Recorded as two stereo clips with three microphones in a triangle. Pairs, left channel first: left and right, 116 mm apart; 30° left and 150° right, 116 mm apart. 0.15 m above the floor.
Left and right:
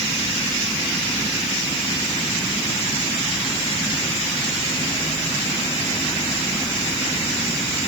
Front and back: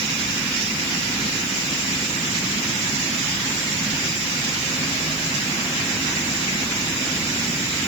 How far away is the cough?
I don't hear a cough.